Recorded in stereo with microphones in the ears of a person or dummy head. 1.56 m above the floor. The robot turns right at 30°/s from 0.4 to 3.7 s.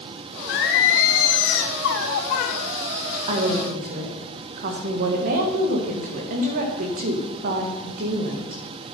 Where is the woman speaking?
35° right (ahead or behind), 1.5 m; by 8.6 s 45° right (ahead or behind), 1.5 m.